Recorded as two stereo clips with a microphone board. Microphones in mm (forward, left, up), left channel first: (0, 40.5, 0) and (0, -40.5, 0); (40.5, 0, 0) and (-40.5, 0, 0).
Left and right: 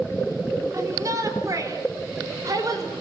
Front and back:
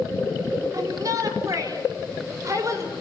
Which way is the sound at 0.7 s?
140° right.